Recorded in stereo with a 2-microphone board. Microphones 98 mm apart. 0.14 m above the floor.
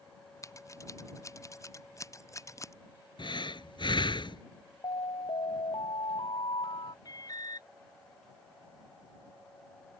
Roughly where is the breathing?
Left.